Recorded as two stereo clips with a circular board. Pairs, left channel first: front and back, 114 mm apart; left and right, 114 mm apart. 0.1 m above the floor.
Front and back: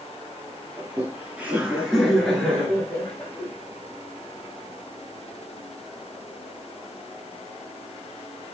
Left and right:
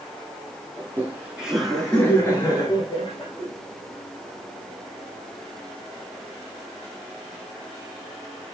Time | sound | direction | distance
0.8 | laughter | 125° right | 1.6 m